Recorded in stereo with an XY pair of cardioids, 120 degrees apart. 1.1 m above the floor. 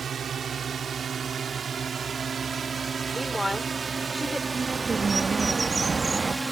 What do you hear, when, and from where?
0.0 s a drone: 35° right; by 6.5 s 10° right
3.1 s a woman speaking: 10° left
4.5 s a bird: 20° right